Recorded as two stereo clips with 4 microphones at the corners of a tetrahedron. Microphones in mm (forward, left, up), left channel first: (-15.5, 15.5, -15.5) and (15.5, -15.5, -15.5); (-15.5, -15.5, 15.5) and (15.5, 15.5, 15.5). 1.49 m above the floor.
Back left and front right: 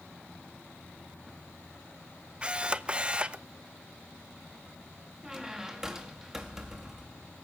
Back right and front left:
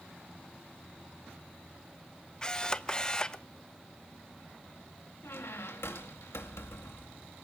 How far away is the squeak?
About 2 m.